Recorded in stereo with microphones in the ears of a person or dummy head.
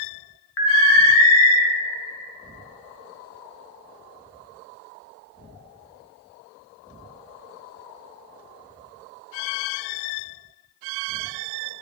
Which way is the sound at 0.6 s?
70° left (ahead or behind).